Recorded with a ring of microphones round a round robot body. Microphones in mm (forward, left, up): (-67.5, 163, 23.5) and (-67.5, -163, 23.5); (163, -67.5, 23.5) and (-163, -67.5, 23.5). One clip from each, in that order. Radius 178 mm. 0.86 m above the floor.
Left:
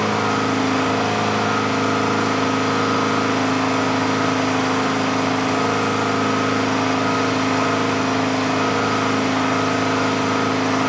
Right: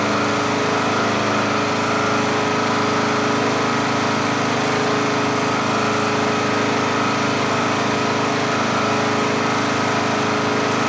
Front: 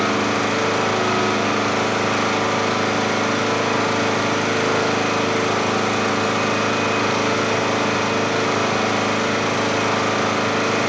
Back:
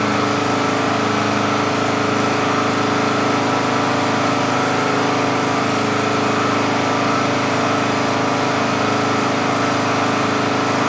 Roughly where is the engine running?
Ahead right.